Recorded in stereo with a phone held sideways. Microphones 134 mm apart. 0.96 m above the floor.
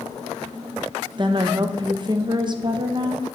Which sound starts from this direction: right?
A woman speaking, at 1.2 s.